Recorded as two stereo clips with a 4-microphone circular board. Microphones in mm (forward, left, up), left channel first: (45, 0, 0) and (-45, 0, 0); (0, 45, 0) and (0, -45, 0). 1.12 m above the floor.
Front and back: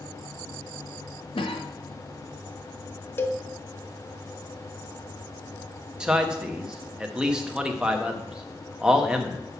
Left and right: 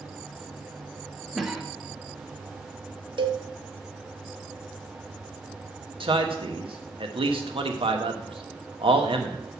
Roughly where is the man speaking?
Right.